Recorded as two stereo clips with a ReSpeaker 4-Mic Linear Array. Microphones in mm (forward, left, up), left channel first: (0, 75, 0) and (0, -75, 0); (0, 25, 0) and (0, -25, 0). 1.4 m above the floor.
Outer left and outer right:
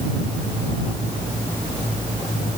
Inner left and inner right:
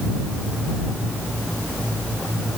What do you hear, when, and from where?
Only background noise.